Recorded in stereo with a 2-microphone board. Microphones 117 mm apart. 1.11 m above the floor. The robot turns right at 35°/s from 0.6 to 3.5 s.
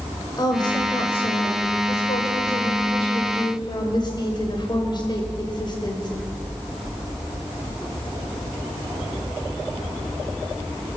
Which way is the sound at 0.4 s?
40° left.